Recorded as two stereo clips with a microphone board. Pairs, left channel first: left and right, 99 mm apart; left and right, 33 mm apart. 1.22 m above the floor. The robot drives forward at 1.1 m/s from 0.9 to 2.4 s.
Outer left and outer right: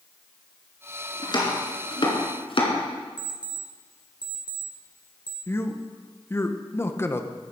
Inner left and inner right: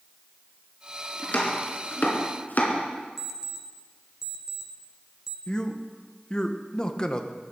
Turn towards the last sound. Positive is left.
turn(degrees=25)  # may be behind; listen again after turning